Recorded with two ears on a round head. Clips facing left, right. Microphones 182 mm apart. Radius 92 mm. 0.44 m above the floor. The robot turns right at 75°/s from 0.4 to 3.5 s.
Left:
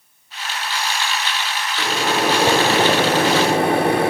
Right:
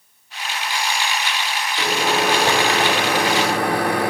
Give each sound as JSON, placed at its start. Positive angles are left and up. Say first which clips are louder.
{"t": 1.8, "sound": "a microwave", "louder": "even", "side_deg": -10, "distance_m": 0.6}